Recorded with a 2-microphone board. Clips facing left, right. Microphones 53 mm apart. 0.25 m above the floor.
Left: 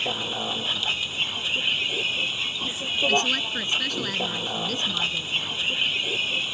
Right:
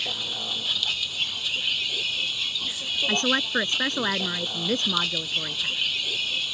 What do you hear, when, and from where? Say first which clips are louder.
0.0 s a vehicle: left 4 dB; 25° left (ahead or behind)
3.1 s a woman speaking: right 2 dB; 35° right (ahead or behind)